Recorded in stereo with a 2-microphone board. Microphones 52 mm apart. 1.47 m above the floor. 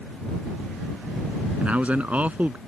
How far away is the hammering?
No hammering in this recording.